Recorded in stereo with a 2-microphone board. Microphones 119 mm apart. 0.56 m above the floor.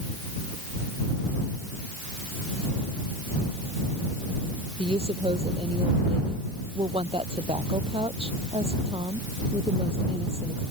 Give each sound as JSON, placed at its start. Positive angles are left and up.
{"t": 4.8, "sound": "a woman speaking", "side_deg": -55}